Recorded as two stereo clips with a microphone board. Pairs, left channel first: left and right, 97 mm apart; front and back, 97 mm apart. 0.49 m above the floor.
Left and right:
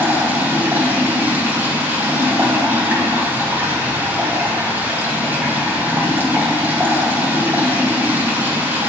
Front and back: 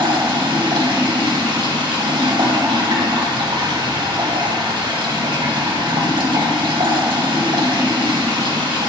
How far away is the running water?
About 2.5 m.